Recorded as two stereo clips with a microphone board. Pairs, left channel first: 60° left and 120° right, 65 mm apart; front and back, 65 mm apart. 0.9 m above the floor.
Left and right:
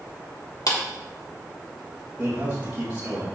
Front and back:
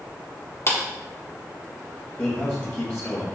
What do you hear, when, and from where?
0.7 s a clap: 45° left, 2.0 m
2.2 s a man speaking: 55° right, 3 m